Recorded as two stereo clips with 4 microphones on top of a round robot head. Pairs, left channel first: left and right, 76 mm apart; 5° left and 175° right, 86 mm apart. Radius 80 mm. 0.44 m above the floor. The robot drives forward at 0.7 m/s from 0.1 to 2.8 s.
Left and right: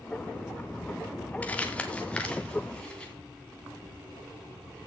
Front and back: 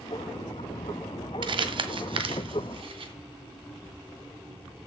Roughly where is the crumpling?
Behind.